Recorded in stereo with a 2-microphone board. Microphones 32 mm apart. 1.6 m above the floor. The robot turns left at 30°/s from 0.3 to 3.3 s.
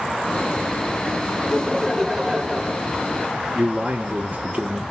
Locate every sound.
1.4 s laughter: 15° left, 1.0 m; by 2.9 s 30° right, 1.0 m
3.5 s a man speaking: 45° right (ahead or behind), 0.9 m